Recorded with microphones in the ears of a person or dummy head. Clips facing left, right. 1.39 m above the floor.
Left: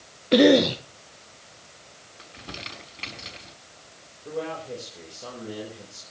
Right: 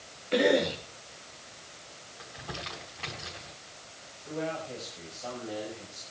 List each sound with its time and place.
0.3 s a cough: 60° left (ahead or behind), 0.8 m
2.2 s crumpling: 45° left (ahead or behind), 5 m
4.2 s a man speaking: 65° left (ahead or behind), 5.5 m